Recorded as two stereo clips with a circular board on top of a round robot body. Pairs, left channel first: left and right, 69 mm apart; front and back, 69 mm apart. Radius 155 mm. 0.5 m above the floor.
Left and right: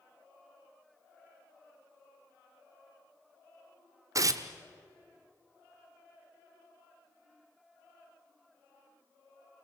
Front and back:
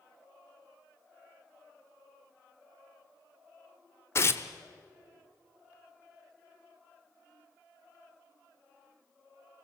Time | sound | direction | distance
4.2 | tearing paper | 50° right | 0.9 m